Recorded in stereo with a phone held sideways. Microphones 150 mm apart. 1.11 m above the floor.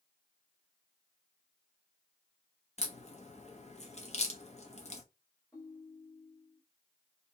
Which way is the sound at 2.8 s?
50° left (ahead or behind).